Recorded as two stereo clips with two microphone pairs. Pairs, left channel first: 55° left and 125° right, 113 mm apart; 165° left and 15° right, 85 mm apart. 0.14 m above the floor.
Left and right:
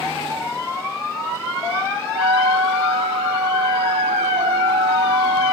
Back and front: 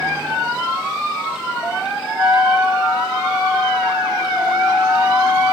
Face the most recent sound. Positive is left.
turn(degrees=-90)